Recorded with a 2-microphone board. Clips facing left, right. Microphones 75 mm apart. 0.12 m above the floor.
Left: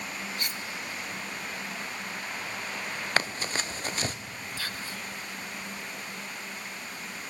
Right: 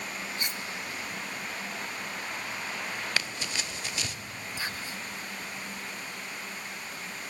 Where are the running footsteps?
40° left (ahead or behind), 1.3 m.